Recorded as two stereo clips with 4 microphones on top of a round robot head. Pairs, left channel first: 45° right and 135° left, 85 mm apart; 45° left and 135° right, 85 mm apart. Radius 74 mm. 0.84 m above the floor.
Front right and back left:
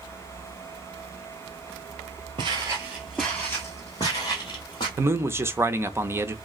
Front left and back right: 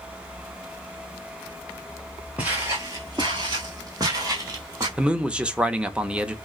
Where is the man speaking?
160° left, 0.7 m.